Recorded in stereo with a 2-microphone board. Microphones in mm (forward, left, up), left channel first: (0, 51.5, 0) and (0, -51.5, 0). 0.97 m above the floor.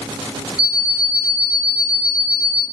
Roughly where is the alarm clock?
Centre.